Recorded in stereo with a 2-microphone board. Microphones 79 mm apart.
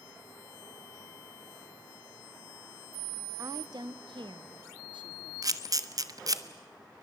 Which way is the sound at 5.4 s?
50° right (ahead or behind).